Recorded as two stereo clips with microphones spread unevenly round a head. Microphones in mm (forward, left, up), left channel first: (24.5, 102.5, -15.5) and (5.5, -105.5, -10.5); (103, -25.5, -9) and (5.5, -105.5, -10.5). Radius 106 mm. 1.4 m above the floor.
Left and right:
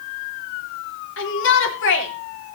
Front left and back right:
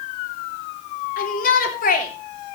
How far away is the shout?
About 3.5 m.